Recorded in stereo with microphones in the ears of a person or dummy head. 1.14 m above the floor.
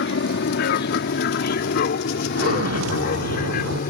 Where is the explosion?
80° right.